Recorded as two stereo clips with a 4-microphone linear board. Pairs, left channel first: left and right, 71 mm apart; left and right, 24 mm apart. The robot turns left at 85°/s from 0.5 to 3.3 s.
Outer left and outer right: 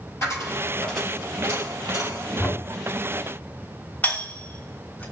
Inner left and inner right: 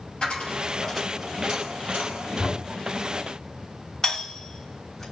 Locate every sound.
0.2 s a dropped coin: 45° left, 2.5 m; by 2.3 s 105° right, 2.5 m
2.4 s knocking: 5° left (ahead or behind), 1.5 m; by 2.6 s 5° right (ahead or behind), 1.5 m
4.0 s a doorbell: 20° left (ahead or behind), 3.5 m